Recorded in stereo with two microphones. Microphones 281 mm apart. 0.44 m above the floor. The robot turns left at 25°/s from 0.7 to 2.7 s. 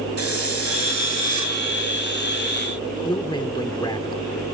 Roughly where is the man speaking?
Centre.